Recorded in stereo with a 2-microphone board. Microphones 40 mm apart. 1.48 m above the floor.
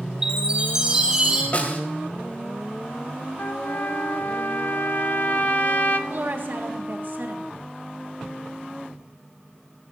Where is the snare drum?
40° left (ahead or behind), 2.5 m.